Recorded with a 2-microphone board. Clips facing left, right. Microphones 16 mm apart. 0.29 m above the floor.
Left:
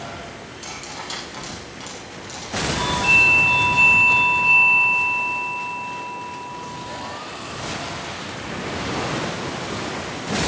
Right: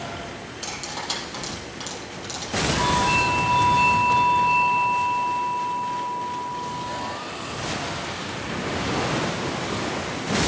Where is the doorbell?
55° left (ahead or behind), 8.5 m.